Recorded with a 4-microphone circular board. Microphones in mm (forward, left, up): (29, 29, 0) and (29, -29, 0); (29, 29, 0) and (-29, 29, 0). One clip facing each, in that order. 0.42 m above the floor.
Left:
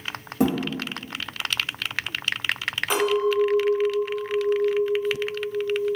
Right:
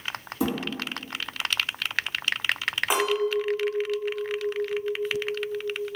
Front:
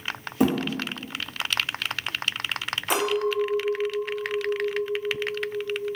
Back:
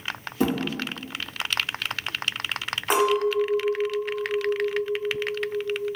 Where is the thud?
70° left, 1.2 m.